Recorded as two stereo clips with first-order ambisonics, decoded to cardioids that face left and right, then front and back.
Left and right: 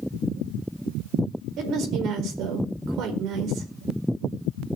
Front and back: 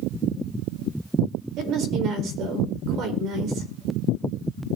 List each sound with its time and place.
1.6 s a woman speaking: 135° right, 4.5 m